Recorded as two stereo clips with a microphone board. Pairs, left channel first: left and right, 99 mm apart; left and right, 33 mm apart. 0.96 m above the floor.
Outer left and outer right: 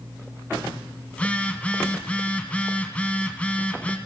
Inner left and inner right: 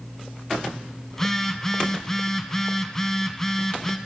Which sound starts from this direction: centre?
A phone buzzing, at 1.1 s.